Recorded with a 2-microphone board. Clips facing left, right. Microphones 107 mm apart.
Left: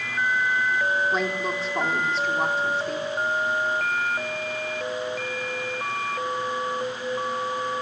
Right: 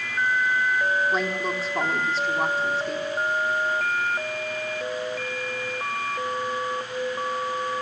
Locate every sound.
1.1 s a woman speaking: centre (ahead or behind), 3 m